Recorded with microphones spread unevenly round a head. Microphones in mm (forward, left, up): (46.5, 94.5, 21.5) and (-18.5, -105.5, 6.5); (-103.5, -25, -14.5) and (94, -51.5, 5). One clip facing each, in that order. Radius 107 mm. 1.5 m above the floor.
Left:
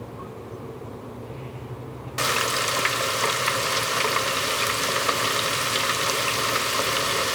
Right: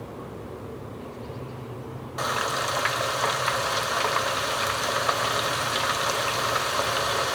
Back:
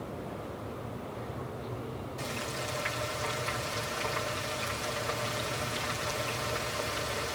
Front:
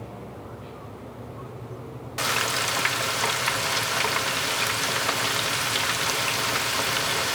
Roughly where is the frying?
Ahead.